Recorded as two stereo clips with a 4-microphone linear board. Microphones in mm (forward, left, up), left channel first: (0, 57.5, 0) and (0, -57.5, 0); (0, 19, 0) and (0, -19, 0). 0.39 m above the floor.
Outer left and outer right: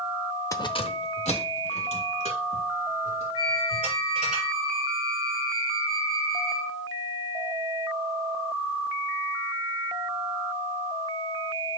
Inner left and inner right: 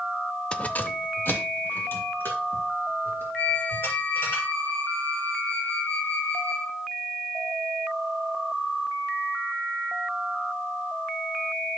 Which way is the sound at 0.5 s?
25° left (ahead or behind).